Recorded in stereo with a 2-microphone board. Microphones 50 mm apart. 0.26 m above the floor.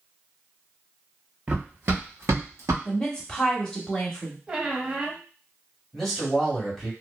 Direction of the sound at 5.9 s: 5° left (ahead or behind).